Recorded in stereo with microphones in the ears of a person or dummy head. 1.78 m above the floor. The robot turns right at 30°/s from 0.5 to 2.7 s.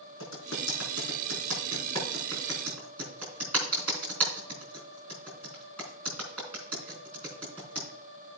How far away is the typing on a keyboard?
About 4.5 m.